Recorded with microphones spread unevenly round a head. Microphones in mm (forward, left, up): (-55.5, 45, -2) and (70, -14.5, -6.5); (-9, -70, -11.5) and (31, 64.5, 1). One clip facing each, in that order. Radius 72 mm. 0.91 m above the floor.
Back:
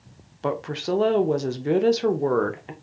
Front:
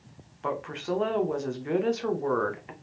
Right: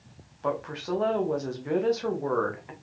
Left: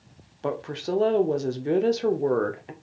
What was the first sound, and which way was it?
A woman speaking, 125° left.